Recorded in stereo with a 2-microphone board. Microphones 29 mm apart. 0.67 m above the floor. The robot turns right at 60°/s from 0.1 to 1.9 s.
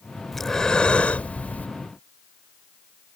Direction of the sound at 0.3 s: 5° left.